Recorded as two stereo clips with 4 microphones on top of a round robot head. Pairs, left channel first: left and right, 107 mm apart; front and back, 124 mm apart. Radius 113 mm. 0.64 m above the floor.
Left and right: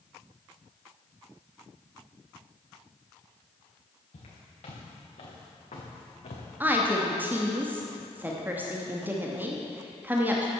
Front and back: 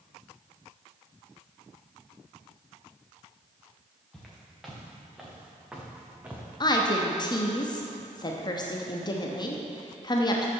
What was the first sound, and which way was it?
Footsteps, 90° left.